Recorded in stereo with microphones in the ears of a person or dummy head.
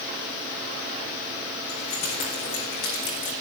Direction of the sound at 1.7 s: 45° left (ahead or behind).